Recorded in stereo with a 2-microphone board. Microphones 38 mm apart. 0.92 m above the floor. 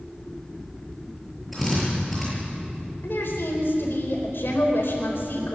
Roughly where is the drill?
Centre.